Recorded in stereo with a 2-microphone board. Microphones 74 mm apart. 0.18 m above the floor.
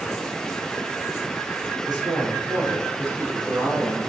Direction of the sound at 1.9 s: 75° right (ahead or behind).